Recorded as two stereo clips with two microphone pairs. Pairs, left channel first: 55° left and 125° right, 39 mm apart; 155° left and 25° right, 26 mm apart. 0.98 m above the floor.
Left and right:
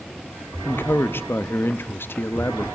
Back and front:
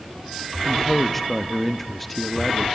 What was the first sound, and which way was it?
A man speaking, 70° left.